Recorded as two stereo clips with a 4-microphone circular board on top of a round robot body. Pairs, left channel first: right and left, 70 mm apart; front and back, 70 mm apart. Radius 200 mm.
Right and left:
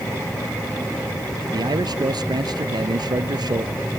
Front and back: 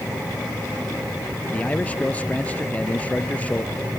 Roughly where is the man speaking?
Left.